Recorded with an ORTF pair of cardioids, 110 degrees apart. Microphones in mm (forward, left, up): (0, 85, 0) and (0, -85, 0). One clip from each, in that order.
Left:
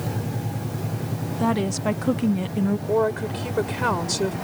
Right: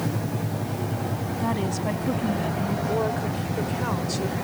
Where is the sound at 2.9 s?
55° left.